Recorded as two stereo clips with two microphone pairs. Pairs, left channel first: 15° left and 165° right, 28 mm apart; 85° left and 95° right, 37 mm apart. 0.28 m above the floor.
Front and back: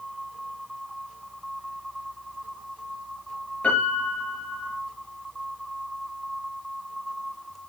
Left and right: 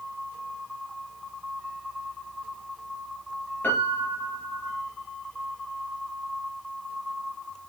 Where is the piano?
55° left, 3.5 m.